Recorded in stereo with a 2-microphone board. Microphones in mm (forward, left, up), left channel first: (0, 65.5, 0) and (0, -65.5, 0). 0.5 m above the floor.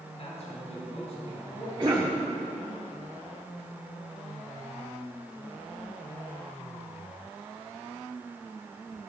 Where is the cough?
40° right (ahead or behind), 1.4 m.